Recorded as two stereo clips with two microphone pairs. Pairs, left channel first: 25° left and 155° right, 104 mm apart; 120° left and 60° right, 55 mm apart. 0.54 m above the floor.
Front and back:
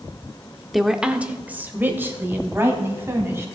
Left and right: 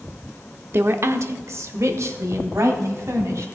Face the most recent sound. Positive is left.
turn(degrees=-90)